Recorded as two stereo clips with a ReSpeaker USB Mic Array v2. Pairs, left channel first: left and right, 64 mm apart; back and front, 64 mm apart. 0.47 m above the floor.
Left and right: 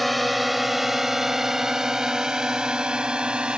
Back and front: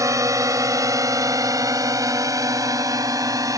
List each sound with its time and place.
0.0 s a drone: straight ahead; by 3.6 s 15° right